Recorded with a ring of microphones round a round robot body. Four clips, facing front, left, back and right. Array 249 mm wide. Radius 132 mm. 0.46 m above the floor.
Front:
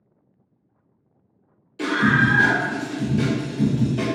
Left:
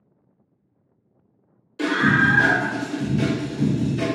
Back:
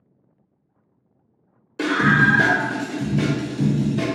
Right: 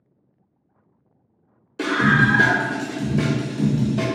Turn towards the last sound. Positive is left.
turn(degrees=-70)